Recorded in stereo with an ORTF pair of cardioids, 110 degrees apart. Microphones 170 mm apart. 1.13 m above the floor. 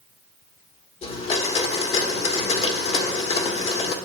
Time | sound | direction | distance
1.0 | a blender | 40° left | 1.5 m